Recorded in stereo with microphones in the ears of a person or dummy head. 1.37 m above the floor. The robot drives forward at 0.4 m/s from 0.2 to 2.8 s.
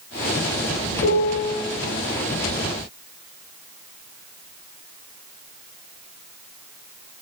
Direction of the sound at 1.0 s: 80° left.